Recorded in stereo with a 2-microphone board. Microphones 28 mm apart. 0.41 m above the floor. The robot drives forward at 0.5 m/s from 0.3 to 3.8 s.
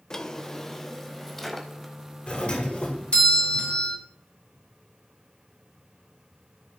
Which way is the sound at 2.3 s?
35° left (ahead or behind).